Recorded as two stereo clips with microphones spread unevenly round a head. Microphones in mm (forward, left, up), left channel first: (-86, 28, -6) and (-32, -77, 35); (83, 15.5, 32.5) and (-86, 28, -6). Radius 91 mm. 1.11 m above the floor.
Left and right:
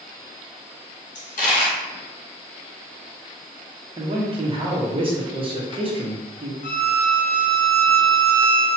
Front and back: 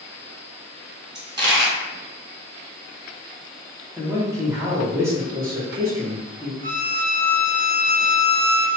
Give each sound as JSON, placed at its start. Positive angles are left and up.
{"t": 1.1, "sound": "a dropped coin", "azimuth_deg": 100, "distance_m": 1.5}
{"t": 4.0, "sound": "a man speaking", "azimuth_deg": -115, "distance_m": 0.9}
{"t": 6.6, "sound": "a violin", "azimuth_deg": 130, "distance_m": 0.7}